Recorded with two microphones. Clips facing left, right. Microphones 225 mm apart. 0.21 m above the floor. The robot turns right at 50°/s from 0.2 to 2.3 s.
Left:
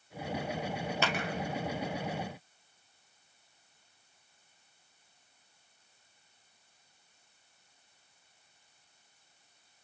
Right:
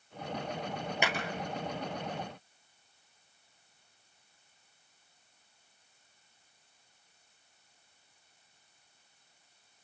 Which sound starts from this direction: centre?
A clap, at 1.0 s.